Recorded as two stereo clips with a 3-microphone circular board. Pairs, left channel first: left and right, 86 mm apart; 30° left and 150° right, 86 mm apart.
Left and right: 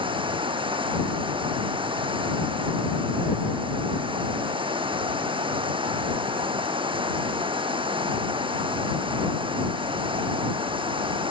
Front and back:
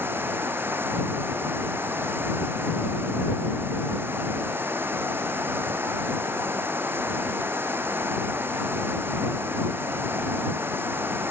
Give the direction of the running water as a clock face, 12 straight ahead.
3 o'clock.